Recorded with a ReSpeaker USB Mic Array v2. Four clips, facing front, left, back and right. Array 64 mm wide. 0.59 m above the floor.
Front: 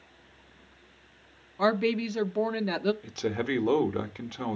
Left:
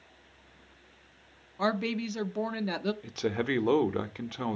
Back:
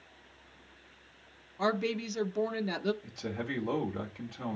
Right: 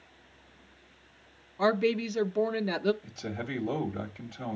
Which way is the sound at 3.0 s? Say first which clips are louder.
Left 7 dB, front 7 dB; 55° left.